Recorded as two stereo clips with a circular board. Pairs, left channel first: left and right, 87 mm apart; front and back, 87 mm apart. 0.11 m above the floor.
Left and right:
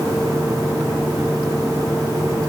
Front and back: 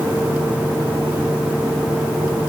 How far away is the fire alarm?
I don't hear a fire alarm.